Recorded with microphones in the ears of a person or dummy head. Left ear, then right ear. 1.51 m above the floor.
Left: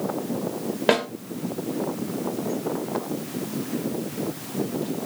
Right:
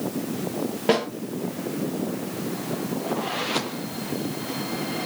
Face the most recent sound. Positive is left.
turn(degrees=20)  # may be behind; listen again after turning